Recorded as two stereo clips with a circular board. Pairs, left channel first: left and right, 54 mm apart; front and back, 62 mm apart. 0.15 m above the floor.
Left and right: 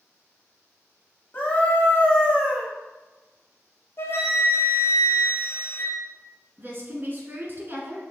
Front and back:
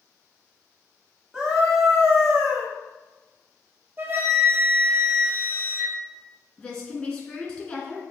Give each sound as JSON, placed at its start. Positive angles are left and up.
{"t": 1.3, "sound": "a scream", "azimuth_deg": 110, "distance_m": 1.3}
{"t": 4.0, "sound": "a flute", "azimuth_deg": 125, "distance_m": 0.7}
{"t": 6.6, "sound": "a woman speaking", "azimuth_deg": -80, "distance_m": 1.4}